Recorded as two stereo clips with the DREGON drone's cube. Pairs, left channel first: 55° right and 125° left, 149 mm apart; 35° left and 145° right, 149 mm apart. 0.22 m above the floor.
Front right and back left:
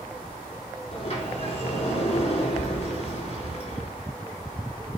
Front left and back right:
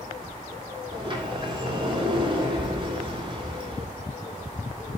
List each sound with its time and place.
0.9 s a sliding door: 95° right, 4.5 m